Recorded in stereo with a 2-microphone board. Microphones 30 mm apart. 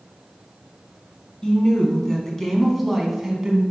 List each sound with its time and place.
1.4 s a woman speaking: 25° left (ahead or behind), 1.9 m; by 3.6 s 20° right (ahead or behind), 1.7 m